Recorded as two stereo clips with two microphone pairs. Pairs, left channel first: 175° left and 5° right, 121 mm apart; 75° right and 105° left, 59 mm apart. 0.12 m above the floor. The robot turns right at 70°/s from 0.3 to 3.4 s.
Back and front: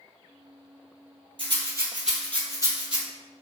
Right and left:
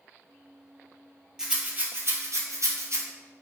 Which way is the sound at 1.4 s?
30° left.